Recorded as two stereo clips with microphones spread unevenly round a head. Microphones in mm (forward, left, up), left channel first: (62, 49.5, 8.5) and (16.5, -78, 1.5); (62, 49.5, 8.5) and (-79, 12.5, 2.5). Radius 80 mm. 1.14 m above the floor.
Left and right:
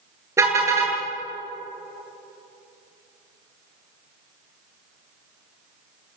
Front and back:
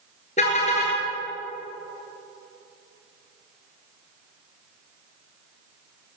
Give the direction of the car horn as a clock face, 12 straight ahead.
1 o'clock.